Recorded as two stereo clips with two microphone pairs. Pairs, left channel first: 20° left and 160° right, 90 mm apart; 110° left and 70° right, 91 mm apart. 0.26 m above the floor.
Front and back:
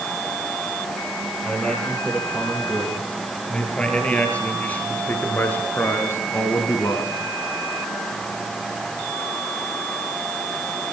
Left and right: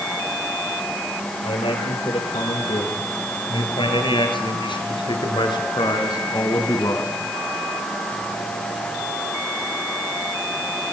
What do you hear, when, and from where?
1.4 s a man speaking: 105° left, 9 m; by 7.1 s 65° left, 3 m